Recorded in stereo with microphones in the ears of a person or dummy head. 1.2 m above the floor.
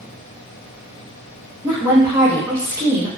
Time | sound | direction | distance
1.6 | a woman speaking | 20° right (ahead or behind) | 0.9 m